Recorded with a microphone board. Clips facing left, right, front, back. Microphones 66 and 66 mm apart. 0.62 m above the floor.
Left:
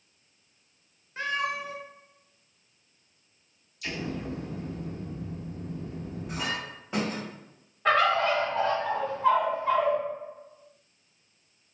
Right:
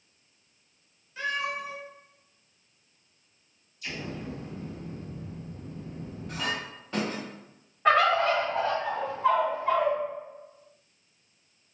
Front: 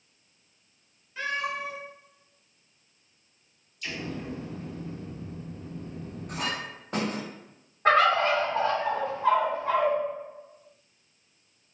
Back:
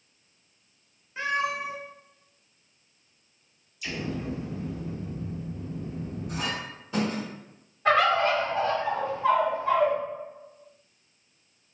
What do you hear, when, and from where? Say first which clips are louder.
1.2 s a cat meowing: left 1 dB, back 3 dB; 125° left, 0.7 m
3.8 s an explosion: left 3 dB, back 3 dB; 95° left, 0.7 m
6.3 s a clink: right 1 dB, front 2 dB; 15° left, 1.1 m
7.8 s a bird: right 1 dB, front 1 dB; 20° right, 1.5 m